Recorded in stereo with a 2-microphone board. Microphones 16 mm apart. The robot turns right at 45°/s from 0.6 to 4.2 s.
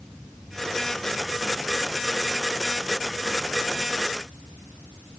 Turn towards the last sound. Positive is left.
No sound to turn to.